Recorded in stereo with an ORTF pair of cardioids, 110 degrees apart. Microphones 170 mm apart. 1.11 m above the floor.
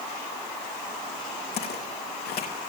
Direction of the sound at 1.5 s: 70° left.